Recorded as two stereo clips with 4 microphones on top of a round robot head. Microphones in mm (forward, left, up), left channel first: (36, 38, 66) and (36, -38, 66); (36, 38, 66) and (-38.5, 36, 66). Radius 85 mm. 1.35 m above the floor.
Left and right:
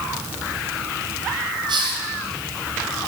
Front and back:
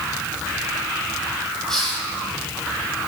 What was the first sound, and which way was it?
A hiss, 85° right.